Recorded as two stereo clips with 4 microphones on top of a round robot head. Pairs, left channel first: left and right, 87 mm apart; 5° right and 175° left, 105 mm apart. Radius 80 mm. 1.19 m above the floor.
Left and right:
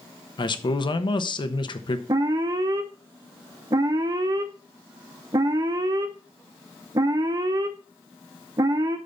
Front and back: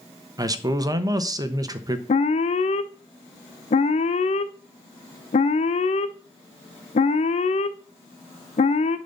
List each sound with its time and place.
0.4 s a man speaking: 120° left, 1.1 m
2.1 s an alarm: 35° right, 0.7 m